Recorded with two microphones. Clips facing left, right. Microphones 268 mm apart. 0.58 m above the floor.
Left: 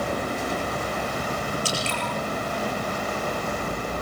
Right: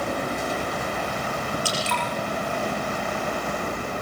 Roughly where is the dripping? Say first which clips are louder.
Even; left.